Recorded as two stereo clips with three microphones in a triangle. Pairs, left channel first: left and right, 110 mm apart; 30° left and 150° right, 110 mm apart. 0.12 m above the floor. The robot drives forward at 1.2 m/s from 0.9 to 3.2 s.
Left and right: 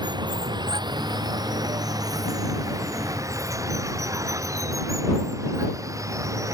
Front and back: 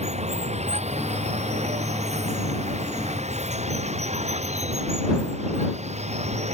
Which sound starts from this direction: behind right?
Running water, at 0.0 s.